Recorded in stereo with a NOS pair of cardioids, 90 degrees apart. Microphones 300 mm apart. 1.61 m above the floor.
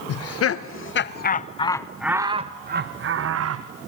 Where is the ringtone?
I don't hear a ringtone.